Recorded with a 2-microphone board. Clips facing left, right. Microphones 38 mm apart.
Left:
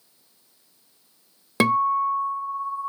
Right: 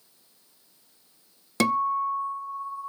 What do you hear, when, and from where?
1.6 s a guitar: 20° left (ahead or behind), 1.0 m